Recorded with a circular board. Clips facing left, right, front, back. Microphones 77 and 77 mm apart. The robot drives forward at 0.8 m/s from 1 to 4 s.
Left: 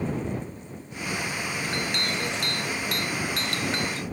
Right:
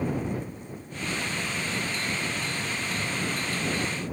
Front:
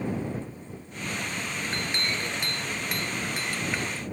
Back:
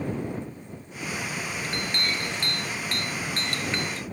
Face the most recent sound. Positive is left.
turn(degrees=85)